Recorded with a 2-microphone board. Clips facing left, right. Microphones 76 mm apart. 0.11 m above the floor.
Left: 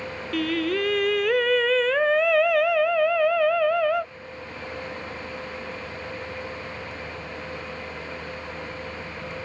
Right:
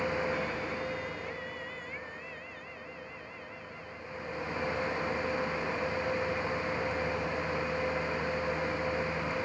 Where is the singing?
75° left (ahead or behind).